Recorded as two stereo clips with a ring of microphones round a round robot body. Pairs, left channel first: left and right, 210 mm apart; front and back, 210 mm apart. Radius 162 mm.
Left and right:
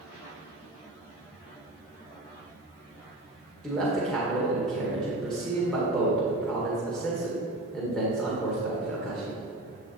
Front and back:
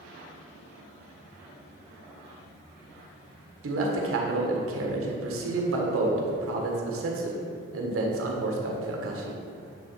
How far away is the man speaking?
About 1.8 m.